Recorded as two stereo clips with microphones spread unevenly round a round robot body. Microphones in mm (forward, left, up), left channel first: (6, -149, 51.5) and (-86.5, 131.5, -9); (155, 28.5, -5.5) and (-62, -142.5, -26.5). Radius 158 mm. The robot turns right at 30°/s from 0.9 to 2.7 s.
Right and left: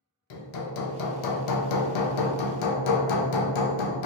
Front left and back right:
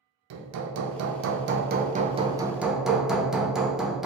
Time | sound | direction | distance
0.3 | hammering | 110° right | 0.5 m